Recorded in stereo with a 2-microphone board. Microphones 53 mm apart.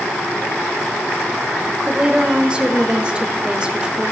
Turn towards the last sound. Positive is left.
turn(degrees=-20)  # may be behind; listen again after turning